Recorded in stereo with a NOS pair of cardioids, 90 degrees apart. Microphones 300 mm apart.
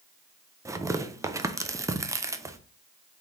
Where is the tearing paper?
10° right, 0.5 m.